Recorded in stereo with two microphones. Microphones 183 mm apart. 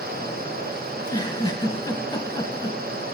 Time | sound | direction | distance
0.9 | a giggle | 25° left (ahead or behind) | 1.0 m